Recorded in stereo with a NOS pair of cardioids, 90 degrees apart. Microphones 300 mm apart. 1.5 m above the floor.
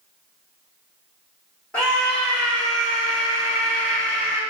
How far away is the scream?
About 1.4 m.